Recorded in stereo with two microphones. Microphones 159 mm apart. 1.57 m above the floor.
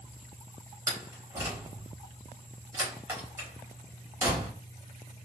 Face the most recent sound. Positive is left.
turn(degrees=-15)  # may be behind; listen again after turning